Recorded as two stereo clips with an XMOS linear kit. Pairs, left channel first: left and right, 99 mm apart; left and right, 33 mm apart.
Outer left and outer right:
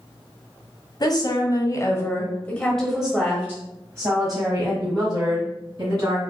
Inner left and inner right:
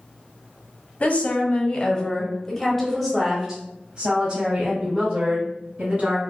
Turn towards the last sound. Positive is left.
turn(degrees=-45)  # may be behind; listen again after turning